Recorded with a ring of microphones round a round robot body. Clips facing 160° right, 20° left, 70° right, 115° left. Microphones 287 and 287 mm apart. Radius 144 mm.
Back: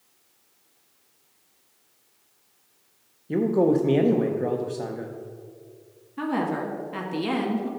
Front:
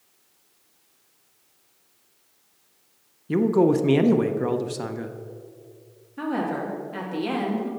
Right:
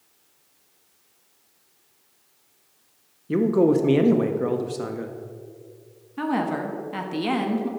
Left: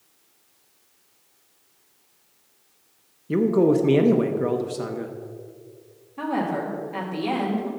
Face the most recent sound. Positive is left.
turn(degrees=-90)